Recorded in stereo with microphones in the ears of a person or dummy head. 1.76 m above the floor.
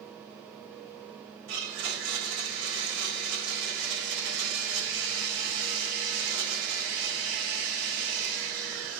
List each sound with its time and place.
1.5 s a blender: 60° right (ahead or behind), 3.5 m